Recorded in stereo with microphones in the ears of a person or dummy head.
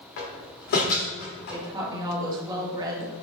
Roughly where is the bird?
No bird in this recording.